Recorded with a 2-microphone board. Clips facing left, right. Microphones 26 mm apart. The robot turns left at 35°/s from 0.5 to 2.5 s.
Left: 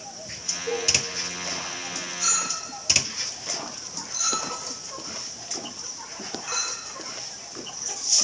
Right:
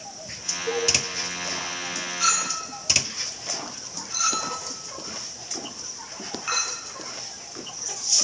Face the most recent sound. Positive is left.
turn(degrees=-40)  # may be behind; listen again after turning